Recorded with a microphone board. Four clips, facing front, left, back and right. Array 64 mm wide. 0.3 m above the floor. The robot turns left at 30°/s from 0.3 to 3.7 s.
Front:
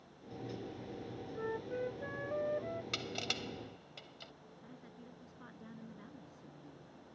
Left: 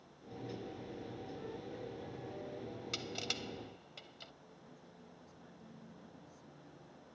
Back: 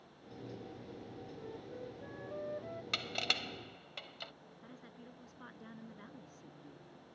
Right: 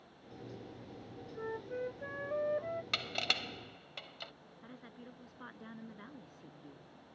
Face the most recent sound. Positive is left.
turn(degrees=-105)